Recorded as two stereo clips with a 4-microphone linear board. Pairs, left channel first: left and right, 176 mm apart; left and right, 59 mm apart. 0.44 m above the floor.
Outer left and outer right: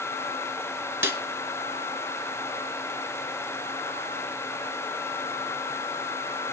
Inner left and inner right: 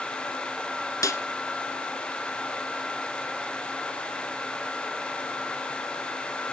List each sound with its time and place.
1.0 s a snare drum: 80° left, 1.1 m